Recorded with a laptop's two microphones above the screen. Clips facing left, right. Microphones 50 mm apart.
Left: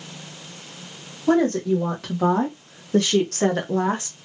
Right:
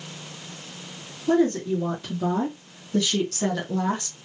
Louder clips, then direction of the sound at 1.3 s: Left 2 dB; 70° left (ahead or behind).